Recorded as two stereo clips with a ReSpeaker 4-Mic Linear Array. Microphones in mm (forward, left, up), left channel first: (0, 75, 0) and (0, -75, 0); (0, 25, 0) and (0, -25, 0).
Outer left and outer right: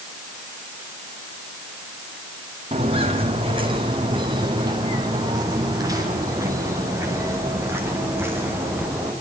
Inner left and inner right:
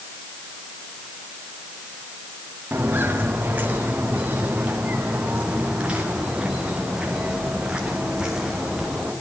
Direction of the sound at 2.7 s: 40° right (ahead or behind).